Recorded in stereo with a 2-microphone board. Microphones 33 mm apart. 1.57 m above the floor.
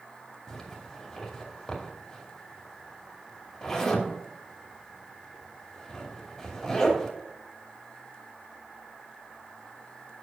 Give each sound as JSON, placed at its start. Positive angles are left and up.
{"t": 0.5, "sound": "a zipper", "side_deg": 5, "distance_m": 2.5}